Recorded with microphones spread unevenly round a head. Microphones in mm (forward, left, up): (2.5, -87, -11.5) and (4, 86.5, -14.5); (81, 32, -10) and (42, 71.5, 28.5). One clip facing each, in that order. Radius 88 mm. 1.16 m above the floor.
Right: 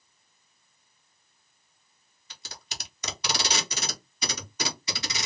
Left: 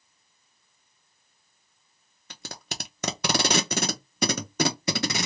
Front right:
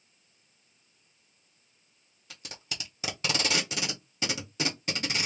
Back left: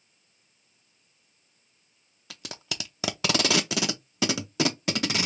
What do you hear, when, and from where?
2.3 s tape being pulled: 125° left, 0.7 m